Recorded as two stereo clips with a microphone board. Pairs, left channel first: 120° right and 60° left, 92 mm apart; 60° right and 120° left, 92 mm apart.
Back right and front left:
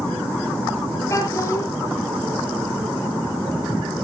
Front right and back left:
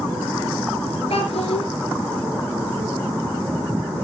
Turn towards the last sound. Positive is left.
turn(degrees=-65)